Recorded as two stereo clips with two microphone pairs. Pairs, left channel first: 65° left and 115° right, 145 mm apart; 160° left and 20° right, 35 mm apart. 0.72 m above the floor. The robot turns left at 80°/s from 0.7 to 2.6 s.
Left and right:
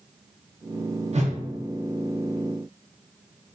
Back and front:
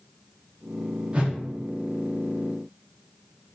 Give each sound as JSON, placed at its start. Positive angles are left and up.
{"t": 1.1, "sound": "a whoosh", "azimuth_deg": -75, "distance_m": 0.6}